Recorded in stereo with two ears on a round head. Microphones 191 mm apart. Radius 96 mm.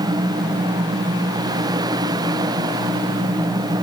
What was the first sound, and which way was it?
Only background noise.